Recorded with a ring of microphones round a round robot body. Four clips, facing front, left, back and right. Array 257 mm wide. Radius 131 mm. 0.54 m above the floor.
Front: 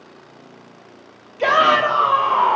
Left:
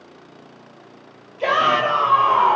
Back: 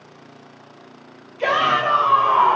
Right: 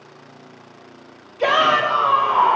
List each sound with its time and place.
1.4 s a shout: 50° right, 0.7 m; by 2.5 s 50° left, 1.4 m